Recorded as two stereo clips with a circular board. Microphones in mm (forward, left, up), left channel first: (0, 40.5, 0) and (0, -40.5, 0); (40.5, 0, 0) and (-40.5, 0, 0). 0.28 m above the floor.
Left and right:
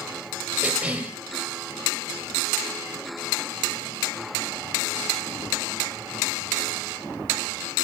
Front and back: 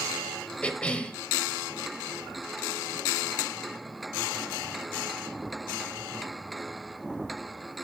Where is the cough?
50° right, 1.0 m.